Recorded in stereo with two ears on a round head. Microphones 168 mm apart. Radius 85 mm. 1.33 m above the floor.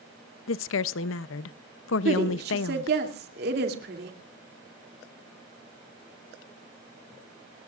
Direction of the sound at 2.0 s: 55° right (ahead or behind).